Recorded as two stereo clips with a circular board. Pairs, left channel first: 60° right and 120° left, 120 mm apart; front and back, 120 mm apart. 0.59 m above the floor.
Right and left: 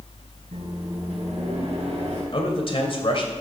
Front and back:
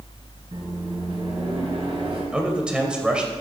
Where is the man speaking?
100° right, 2 m.